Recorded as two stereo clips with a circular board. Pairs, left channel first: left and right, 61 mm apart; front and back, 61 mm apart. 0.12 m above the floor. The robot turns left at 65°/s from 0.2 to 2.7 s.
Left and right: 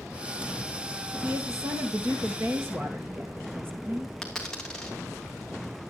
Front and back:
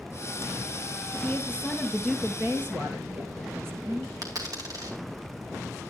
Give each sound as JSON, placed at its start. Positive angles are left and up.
{"t": 1.2, "sound": "a woman speaking", "azimuth_deg": -40, "distance_m": 2.5}
{"t": 4.2, "sound": "a dropped coin", "azimuth_deg": 170, "distance_m": 2.5}